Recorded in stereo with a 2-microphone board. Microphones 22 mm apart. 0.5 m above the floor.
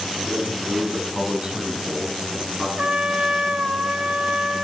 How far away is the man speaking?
About 4.5 m.